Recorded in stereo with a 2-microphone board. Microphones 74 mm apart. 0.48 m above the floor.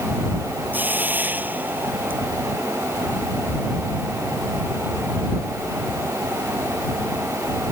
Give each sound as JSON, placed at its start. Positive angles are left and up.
{"t": 0.7, "sound": "a hiss", "side_deg": -25}